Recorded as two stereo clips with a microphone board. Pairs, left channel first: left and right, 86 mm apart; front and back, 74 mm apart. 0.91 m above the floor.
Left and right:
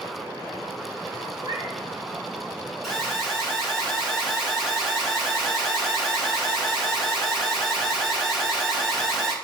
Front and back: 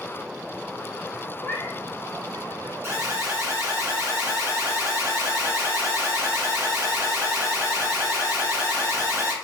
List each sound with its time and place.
1.4 s a cat meowing: 65° right, 1.9 m
2.8 s an alarm: straight behind, 1.8 m